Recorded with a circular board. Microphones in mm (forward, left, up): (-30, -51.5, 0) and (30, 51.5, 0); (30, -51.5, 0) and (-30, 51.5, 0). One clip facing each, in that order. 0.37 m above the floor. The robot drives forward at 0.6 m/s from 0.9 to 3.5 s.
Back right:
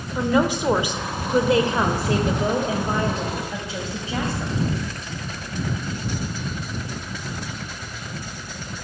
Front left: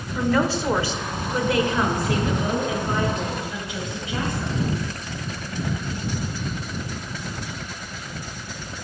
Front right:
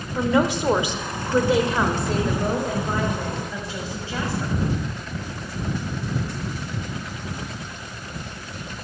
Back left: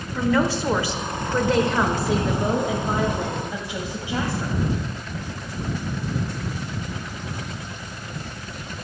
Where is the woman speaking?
90° right, 0.9 m; by 4.6 s 170° right, 1.8 m.